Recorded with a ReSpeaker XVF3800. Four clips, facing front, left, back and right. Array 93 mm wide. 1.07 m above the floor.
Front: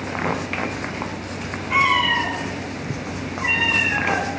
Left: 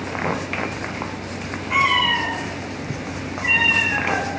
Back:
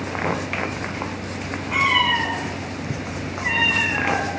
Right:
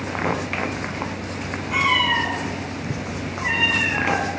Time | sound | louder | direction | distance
1.7 | a cat meowing | left 1 dB, front 1 dB | 30° left | 5 m